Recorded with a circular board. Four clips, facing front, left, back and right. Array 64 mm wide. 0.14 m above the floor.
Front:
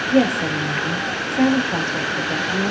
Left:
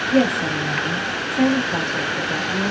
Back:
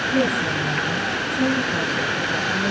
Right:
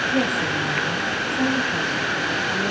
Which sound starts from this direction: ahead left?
A woman speaking, at 0.1 s.